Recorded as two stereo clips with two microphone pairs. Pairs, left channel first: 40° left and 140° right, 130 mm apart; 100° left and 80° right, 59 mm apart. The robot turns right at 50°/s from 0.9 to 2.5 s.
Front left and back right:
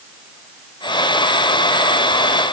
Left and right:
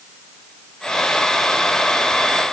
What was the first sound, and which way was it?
Only background noise.